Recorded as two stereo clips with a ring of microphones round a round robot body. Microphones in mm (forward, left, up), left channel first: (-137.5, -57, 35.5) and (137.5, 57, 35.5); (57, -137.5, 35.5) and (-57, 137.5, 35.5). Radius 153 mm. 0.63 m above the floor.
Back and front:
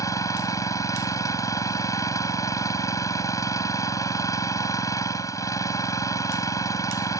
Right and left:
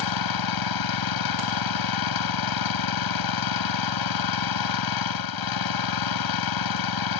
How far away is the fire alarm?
I don't hear a fire alarm.